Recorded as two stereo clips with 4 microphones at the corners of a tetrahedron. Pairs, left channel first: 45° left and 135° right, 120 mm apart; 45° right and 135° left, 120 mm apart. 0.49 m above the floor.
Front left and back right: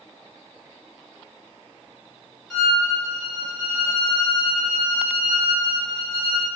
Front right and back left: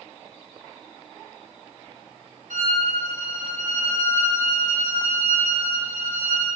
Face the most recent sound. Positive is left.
turn(degrees=135)